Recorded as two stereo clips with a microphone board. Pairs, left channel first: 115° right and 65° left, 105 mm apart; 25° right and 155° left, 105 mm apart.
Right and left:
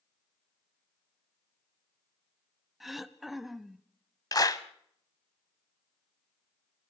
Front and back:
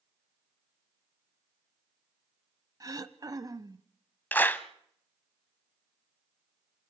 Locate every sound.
2.8 s throat clearing: 155° left, 0.7 m
4.3 s a clap: 85° right, 0.9 m